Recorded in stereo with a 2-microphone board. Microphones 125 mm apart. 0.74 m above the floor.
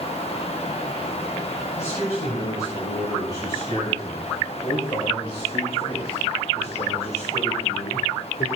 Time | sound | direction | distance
1.8 | a man speaking | 25° left (ahead or behind) | 4.5 m